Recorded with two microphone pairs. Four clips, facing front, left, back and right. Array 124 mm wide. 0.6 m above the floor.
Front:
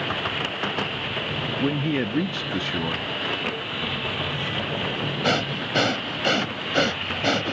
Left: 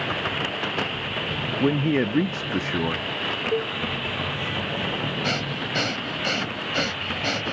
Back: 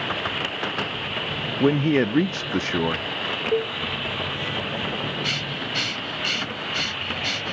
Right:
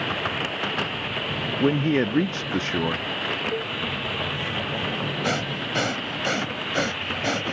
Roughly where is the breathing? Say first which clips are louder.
Right 1 dB, front 6 dB; ahead.